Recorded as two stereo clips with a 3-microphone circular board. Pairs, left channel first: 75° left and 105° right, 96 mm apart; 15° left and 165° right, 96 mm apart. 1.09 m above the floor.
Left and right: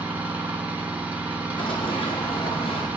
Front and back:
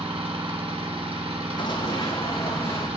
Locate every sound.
0.0 s an engine running: straight behind, 2.5 m
1.6 s running footsteps: 50° left, 3 m; by 2.9 s 75° left, 3.5 m